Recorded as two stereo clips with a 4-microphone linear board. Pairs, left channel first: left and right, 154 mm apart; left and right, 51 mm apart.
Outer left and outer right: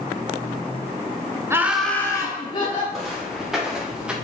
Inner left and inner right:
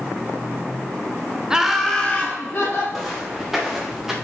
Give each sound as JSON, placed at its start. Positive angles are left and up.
{"t": 1.5, "sound": "laughter", "side_deg": -15, "distance_m": 1.1}
{"t": 2.9, "sound": "footsteps", "side_deg": 0, "distance_m": 2.5}